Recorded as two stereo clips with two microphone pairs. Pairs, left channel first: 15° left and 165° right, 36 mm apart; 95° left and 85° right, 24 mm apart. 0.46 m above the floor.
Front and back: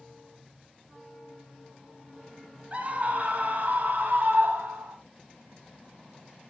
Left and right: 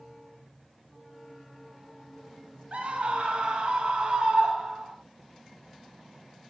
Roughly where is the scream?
Behind right.